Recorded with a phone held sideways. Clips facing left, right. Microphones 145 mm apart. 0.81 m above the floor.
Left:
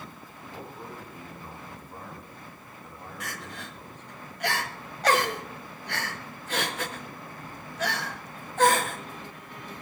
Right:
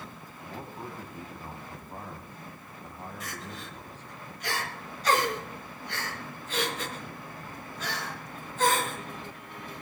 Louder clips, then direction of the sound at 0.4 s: Right 1 dB; 40° right (ahead or behind).